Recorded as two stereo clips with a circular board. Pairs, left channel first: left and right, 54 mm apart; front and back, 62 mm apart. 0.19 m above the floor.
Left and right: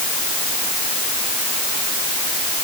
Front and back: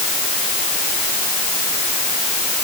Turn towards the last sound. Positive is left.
No sound to turn to.